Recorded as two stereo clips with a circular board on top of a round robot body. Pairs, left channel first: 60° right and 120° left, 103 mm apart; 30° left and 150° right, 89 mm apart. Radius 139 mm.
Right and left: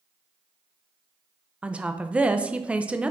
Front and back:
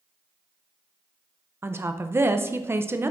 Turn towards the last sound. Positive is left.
turn(degrees=-175)